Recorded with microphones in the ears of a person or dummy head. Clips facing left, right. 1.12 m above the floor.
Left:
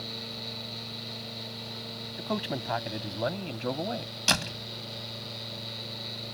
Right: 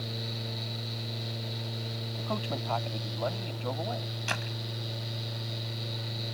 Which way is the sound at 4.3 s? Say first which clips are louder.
Left 8 dB; 65° left (ahead or behind).